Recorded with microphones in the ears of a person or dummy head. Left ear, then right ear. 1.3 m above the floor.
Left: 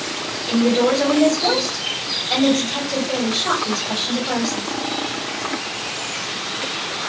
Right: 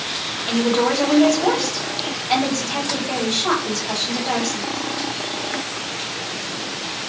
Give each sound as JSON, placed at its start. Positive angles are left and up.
{"t": 0.5, "sound": "a woman speaking", "side_deg": -40, "distance_m": 1.4}